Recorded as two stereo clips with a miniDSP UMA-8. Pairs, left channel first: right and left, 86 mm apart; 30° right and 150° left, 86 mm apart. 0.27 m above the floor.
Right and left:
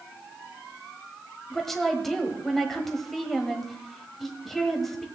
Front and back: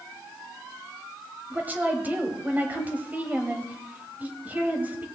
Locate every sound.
1.5 s a woman speaking: 170° right, 1.4 m